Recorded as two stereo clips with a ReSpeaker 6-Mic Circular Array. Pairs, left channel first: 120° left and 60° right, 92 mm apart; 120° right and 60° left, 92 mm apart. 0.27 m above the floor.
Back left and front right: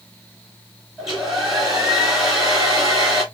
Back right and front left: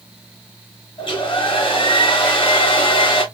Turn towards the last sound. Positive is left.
turn(degrees=-145)